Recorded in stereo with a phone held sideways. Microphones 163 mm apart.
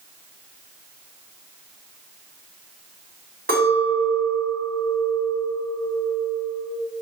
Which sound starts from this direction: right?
A clink, at 3.5 s.